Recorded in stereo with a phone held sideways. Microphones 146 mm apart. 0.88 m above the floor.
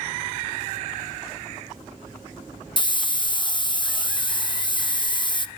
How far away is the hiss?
About 0.9 m.